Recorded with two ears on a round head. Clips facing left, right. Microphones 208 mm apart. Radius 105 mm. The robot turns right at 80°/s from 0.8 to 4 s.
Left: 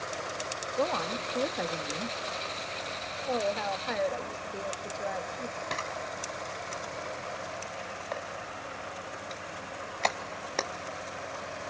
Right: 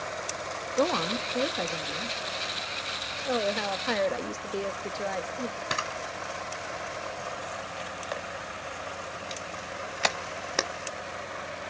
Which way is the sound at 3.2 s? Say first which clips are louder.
Right 2 dB; 155° right.